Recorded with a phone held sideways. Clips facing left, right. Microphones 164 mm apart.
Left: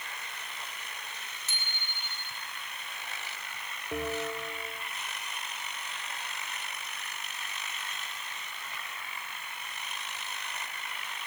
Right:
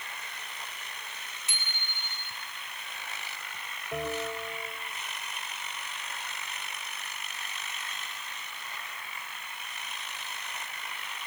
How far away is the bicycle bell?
About 5 m.